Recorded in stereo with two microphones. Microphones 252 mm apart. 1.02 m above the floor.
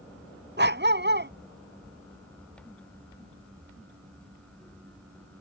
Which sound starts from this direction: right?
A dog barking, at 0.6 s.